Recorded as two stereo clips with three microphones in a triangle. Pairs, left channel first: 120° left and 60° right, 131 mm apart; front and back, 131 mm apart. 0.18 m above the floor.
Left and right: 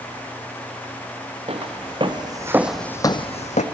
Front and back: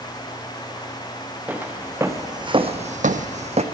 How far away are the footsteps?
About 1.2 m.